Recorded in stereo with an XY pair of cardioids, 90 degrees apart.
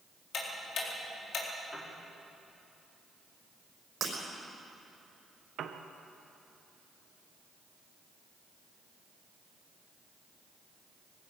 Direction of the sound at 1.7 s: 15° left.